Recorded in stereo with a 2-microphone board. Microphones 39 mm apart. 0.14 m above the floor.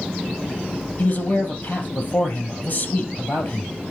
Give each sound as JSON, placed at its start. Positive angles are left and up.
{"t": 1.0, "sound": "a man speaking", "side_deg": 55, "distance_m": 3.0}